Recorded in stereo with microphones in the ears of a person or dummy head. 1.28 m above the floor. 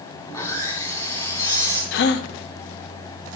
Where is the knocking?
I don't hear knocking.